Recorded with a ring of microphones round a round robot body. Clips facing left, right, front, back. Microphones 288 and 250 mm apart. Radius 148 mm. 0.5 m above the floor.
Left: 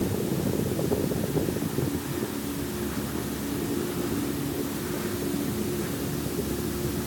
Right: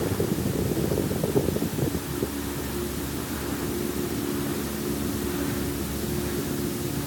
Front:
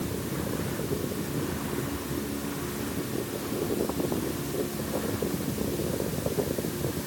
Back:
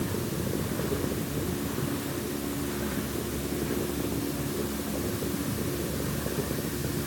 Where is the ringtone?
I don't hear a ringtone.